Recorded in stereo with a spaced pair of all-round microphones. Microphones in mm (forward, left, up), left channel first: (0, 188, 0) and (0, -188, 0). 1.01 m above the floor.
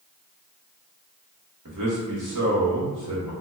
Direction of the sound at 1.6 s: 55° right (ahead or behind).